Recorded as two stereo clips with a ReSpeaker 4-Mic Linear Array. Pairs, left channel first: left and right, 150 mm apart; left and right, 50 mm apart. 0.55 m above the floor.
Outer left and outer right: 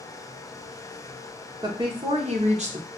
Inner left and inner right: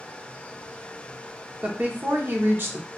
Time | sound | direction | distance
1.6 | a woman speaking | 30° right (ahead or behind) | 0.9 m